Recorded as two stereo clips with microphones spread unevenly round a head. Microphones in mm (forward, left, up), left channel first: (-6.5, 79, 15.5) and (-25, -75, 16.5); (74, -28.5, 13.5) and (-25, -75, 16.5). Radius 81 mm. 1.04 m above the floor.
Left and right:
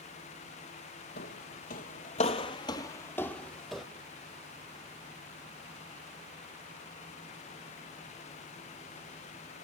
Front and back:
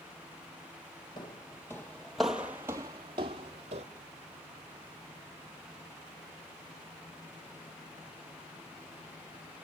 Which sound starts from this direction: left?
Footsteps, at 1.2 s.